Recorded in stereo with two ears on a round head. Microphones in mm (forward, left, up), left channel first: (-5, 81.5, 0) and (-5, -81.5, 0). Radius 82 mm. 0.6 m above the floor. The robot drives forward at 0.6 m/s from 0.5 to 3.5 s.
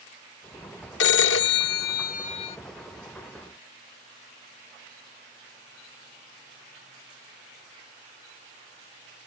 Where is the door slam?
I don't hear a door slam.